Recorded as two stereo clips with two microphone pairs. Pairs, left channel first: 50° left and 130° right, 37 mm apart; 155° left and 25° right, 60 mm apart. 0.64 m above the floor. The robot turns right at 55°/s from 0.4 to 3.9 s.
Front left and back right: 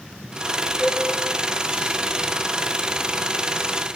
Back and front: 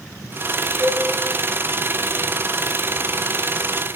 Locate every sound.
0.8 s a cowbell: 20° right, 2 m; by 1.0 s 5° right, 2 m